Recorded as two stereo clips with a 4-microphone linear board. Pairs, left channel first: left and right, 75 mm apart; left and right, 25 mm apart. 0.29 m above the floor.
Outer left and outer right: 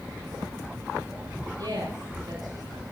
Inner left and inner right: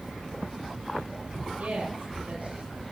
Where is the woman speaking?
65° right (ahead or behind), 7 m.